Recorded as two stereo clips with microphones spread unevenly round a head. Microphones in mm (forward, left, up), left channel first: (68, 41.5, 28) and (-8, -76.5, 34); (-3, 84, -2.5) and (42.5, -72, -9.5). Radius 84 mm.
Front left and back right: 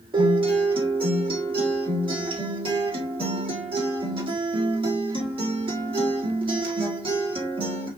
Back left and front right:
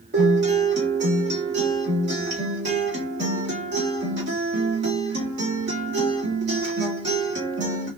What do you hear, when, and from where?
0.1 s a guitar: 75° right, 1.9 m